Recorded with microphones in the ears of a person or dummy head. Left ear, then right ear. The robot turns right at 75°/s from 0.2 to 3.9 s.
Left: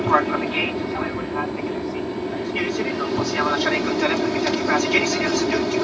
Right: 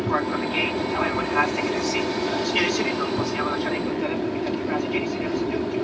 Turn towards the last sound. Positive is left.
turn(degrees=65)